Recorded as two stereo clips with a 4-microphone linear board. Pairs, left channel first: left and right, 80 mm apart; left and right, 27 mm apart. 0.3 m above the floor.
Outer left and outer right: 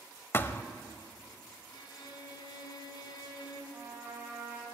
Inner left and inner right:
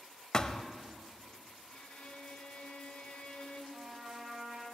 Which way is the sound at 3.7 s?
35° right (ahead or behind).